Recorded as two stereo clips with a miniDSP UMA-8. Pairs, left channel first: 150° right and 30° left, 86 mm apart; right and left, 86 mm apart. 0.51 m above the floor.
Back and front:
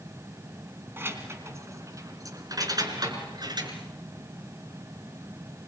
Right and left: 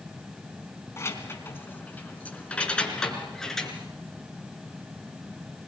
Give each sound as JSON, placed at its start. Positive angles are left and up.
{"t": 1.0, "sound": "keys jangling", "azimuth_deg": -35, "distance_m": 3.0}